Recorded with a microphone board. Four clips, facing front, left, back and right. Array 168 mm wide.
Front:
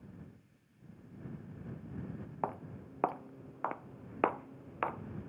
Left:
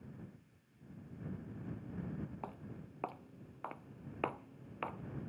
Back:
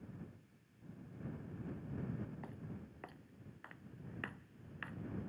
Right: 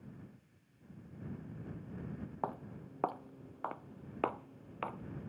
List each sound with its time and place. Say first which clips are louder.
2.4 s footsteps: right 7 dB, front 11 dB; 30° right; by 5.3 s straight ahead